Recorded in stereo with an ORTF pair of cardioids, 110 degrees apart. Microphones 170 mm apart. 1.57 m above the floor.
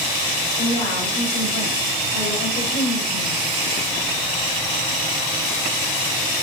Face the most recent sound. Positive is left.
turn(degrees=60)